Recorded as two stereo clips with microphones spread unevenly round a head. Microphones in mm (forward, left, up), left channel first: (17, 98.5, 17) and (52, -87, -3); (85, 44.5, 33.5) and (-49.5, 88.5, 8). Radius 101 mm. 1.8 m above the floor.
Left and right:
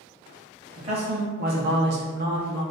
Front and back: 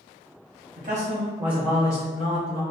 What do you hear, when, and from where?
0.8 s a man speaking: 150° right, 0.7 m; by 2.6 s 35° right, 0.7 m